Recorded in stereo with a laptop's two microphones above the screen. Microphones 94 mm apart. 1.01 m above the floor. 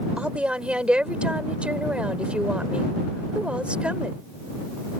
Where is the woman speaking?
10° right (ahead or behind).